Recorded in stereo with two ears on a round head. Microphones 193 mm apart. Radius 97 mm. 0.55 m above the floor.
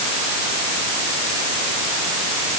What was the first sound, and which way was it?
Only background noise.